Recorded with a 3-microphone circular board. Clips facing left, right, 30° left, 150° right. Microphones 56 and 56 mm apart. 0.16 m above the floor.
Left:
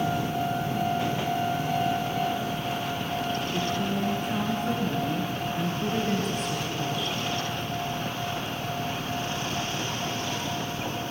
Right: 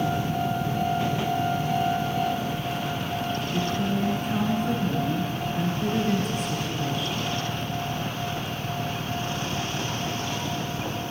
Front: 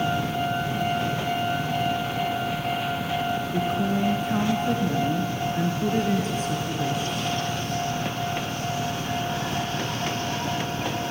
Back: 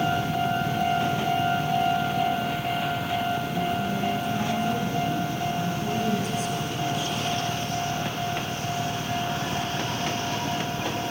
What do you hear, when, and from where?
3.5 s a woman speaking: straight ahead, 2.5 m